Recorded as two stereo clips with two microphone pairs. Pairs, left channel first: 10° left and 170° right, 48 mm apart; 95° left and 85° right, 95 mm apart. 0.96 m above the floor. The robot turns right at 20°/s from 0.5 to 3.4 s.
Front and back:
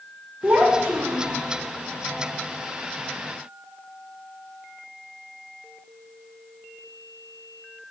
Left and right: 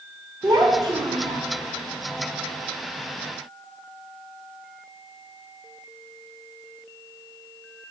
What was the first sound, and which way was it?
A child speaking, 130° right.